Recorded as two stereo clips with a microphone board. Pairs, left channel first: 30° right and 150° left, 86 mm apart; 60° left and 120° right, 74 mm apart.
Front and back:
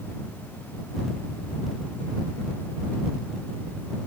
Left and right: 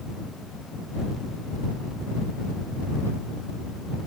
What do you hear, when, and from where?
Only background noise.